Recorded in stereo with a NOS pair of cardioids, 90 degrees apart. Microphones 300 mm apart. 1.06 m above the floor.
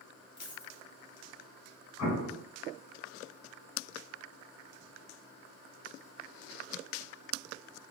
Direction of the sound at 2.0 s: 65° left.